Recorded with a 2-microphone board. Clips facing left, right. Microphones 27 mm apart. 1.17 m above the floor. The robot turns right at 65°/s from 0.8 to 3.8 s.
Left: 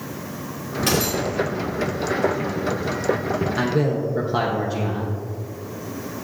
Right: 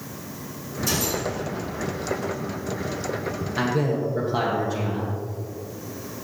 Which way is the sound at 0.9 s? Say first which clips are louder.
Left 4 dB; 90° left.